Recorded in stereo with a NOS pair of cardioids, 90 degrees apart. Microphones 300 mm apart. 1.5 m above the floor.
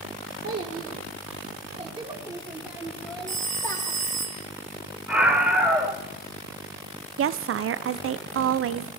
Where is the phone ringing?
25° right, 1.3 m.